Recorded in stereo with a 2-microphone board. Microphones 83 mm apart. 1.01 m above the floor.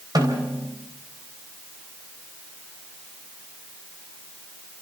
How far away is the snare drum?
About 4 m.